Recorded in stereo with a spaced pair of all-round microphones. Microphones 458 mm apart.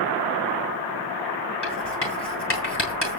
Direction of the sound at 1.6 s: 60° left (ahead or behind).